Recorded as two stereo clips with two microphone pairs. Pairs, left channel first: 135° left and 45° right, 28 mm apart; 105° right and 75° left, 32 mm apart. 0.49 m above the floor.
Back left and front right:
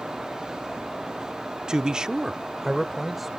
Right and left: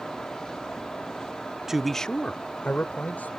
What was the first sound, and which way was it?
A man speaking, straight ahead.